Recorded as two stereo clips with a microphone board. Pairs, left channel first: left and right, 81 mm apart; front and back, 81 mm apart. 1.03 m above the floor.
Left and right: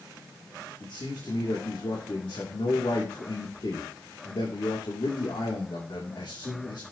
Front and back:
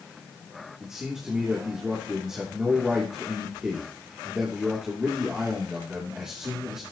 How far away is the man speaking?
About 3 m.